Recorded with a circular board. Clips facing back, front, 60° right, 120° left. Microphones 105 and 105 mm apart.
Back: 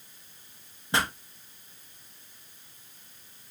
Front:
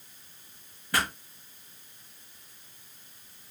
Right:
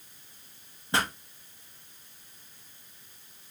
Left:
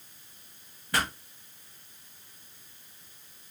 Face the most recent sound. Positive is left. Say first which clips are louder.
# back 1 dB, right 1 dB
turn(degrees=-120)